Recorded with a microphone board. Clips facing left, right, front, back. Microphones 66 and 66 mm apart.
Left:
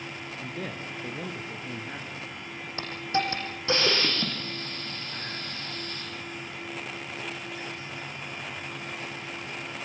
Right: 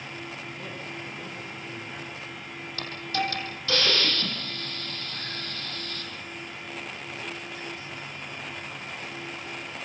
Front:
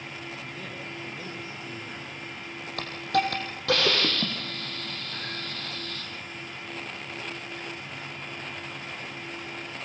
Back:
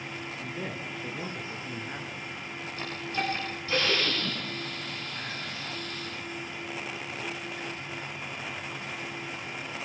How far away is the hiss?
About 6.5 m.